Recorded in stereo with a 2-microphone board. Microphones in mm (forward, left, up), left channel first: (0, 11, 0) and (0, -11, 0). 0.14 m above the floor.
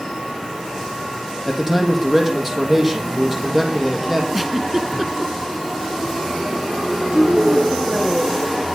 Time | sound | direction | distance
1.4 | a man speaking | 15° right (ahead or behind) | 4 m
4.3 | a giggle | 10° right (ahead or behind) | 0.9 m
7.1 | a woman speaking | 75° right (ahead or behind) | 7 m